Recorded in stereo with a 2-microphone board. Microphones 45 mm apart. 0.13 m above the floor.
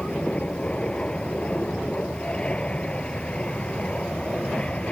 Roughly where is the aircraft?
Left.